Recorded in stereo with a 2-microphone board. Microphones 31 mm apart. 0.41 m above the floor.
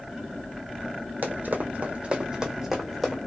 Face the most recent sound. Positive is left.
turn(degrees=0)  # may be behind; listen again after turning